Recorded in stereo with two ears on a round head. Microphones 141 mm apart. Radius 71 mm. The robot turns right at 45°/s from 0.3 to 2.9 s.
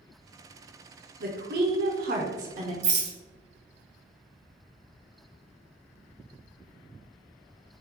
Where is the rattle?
45° right (ahead or behind), 1.3 m; by 3.1 s 40° right (ahead or behind), 1.3 m.